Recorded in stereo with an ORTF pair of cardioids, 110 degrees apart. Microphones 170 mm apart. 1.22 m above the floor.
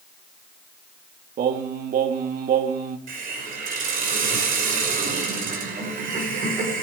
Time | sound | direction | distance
1.4 | singing | 60° right | 1.9 m
3.1 | a hiss | 60° right | 5.5 m